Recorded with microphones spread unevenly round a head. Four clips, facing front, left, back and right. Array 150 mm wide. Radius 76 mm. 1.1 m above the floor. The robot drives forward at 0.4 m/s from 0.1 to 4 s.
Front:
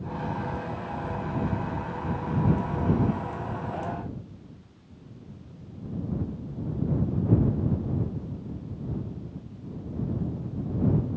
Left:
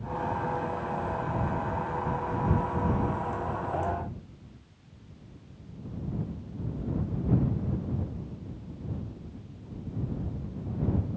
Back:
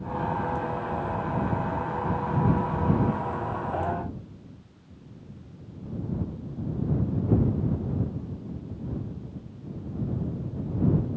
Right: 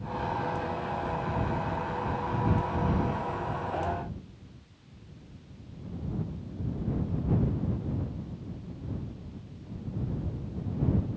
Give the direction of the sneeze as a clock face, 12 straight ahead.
No sneeze in this recording.